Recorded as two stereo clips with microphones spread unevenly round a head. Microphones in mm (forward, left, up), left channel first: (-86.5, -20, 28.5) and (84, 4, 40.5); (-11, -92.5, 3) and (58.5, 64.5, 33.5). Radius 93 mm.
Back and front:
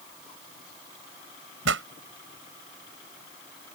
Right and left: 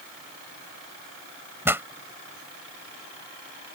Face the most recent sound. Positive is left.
turn(degrees=-10)